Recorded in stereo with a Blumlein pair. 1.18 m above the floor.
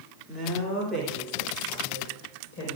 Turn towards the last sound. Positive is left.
turn(degrees=25)